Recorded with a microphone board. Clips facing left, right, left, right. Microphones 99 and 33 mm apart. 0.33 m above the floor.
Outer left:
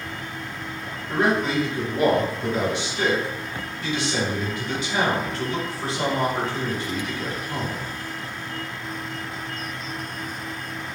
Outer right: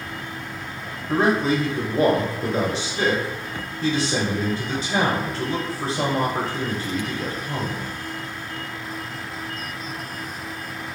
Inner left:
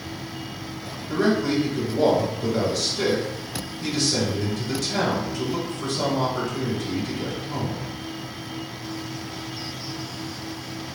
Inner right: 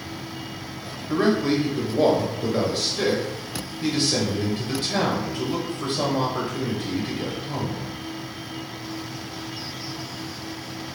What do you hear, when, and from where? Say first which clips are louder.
1.1 s a man speaking: outer right 2 dB, inner right 1 dB; 35° right (ahead or behind), 1.1 m